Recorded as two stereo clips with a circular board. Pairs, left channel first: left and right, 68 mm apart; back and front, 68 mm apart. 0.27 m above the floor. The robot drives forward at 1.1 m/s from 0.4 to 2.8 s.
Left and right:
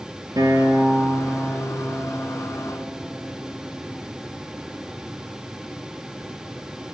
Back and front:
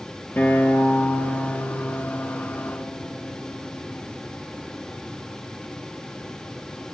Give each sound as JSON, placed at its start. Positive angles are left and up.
{"t": 0.4, "sound": "a guitar", "azimuth_deg": -115, "distance_m": 2.0}